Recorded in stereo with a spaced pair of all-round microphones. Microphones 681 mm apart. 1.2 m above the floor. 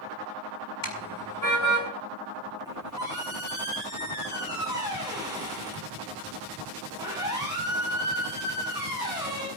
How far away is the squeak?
About 7 m.